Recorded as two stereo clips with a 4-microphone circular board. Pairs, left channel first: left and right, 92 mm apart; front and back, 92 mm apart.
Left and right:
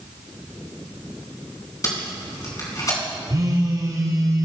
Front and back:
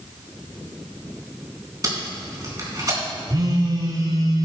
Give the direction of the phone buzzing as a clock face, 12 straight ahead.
5 o'clock.